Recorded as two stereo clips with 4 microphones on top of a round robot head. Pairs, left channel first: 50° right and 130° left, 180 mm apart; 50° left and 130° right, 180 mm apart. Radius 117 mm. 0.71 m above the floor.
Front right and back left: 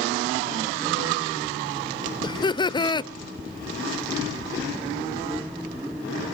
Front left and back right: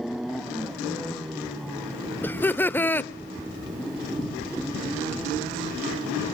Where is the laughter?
20° right, 0.6 m.